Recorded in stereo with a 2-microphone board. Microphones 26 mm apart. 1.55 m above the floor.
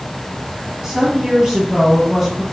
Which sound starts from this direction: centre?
A woman speaking, at 0.8 s.